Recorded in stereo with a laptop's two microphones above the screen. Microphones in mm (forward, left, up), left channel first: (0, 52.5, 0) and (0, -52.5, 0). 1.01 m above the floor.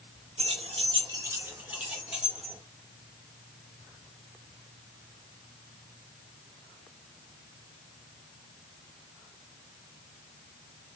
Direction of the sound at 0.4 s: 80° right.